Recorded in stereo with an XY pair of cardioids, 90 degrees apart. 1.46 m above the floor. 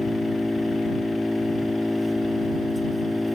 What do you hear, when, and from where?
0.0 s an engine running: 10° left